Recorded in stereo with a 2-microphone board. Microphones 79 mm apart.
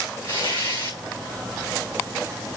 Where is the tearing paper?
30° left (ahead or behind), 7.5 m.